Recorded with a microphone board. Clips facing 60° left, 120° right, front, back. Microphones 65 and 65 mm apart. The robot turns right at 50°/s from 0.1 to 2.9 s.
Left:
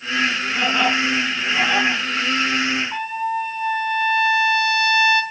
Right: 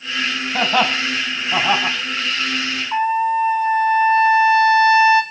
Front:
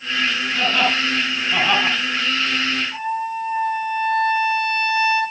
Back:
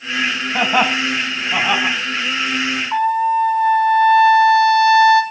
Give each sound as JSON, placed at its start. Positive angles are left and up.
{"t": 0.5, "sound": "laughter", "azimuth_deg": -155, "distance_m": 5.0}
{"t": 2.9, "sound": "a trumpet", "azimuth_deg": 175, "distance_m": 3.0}